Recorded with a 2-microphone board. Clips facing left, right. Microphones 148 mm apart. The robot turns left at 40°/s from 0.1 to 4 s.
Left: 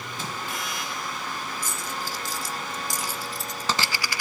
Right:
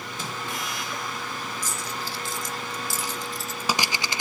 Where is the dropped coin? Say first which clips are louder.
Even; 60° left (ahead or behind), 0.8 m; by 4.2 s 25° right (ahead or behind), 0.8 m.